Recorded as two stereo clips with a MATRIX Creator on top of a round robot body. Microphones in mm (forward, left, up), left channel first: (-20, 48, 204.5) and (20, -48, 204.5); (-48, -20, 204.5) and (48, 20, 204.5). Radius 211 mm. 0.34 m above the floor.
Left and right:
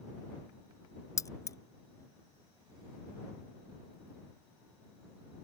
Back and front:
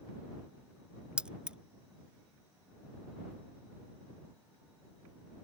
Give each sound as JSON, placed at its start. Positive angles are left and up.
{"t": 1.2, "sound": "keys jangling", "azimuth_deg": 95}